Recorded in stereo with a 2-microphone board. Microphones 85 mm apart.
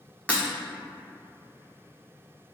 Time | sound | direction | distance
0.3 | breaking glass | 15° left (ahead or behind) | 0.9 m